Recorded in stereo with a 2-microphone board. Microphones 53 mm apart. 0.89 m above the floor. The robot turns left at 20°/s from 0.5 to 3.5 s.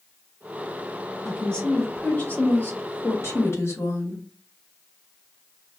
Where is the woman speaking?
170° left, 1.7 m; by 4.2 s 125° left, 1.7 m.